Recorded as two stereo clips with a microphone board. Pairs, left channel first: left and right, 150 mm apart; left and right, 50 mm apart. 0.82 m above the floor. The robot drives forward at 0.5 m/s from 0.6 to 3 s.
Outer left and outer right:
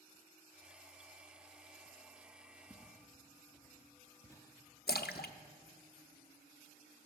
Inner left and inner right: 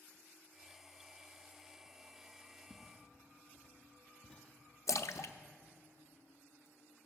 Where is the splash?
85° left, 0.7 m.